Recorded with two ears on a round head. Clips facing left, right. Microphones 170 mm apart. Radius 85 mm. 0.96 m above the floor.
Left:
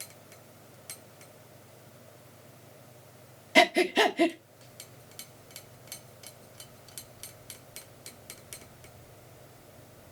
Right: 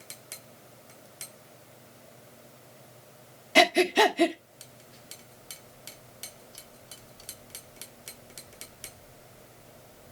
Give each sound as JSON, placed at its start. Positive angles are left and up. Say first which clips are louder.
{"t": 3.5, "sound": "breathing", "louder": "right 2 dB", "side_deg": 5, "distance_m": 1.2}